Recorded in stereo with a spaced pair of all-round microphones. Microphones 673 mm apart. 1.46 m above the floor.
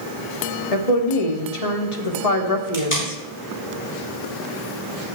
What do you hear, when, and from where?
0.7 s a woman speaking: 60° left (ahead or behind), 1.6 m
2.7 s tape being pulled: 45° left (ahead or behind), 4 m